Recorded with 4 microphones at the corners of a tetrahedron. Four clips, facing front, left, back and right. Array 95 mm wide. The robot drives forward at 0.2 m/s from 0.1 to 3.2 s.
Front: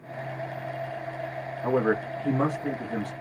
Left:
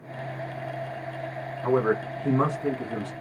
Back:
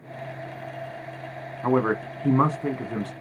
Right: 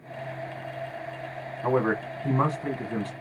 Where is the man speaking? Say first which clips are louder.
Left 1 dB, back 2 dB; 175° right, 2 m.